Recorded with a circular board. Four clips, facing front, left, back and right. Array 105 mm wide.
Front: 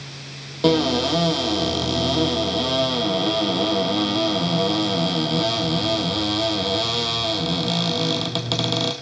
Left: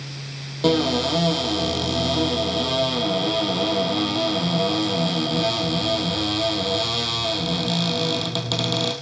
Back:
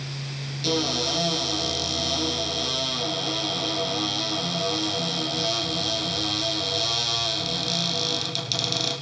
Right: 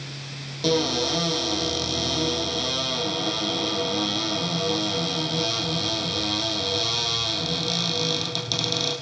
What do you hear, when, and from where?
0.6 s a cupboard door: 25° left, 3.5 m